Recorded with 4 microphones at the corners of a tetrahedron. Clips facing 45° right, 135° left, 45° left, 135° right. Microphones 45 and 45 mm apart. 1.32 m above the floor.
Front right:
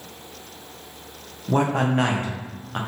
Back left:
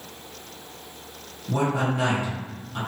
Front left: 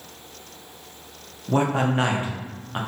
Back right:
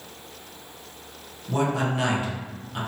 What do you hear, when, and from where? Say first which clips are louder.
1.5 s a man speaking: front right 3 dB, front left 3 dB; 5° right, 0.6 m